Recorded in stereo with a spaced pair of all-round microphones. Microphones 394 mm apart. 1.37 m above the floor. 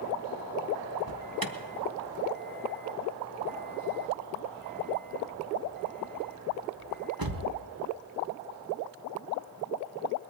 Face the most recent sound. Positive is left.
turn(degrees=-60)  # may be behind; listen again after turning